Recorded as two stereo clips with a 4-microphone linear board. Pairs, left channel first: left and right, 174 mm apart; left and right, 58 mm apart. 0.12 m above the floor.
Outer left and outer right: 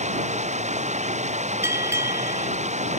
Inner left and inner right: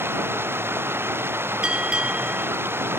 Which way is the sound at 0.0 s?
40° right (ahead or behind).